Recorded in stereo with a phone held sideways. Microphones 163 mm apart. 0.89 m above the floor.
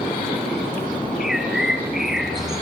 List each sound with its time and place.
1.2 s a bird: 5° right (ahead or behind), 3.5 m